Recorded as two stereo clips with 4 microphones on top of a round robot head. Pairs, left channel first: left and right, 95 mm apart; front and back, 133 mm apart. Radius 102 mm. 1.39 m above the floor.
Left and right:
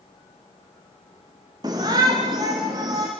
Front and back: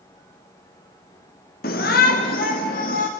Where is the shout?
25° right, 1.0 m; by 3.1 s 30° right, 1.9 m.